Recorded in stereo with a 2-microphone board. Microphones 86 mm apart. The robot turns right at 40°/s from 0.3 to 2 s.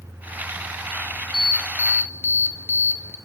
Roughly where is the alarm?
Centre.